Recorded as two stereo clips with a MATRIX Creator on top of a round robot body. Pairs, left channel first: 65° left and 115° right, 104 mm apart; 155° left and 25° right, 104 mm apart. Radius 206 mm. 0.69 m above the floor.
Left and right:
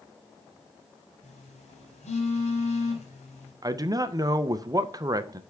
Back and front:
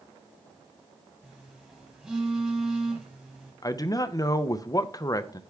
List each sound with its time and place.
1.2 s a phone buzzing: 65° left, 0.7 m
3.6 s a man speaking: 155° right, 0.7 m